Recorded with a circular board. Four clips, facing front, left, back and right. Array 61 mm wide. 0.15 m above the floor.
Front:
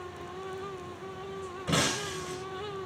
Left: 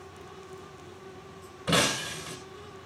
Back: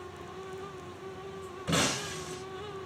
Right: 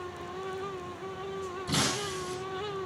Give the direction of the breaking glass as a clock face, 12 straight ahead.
9 o'clock.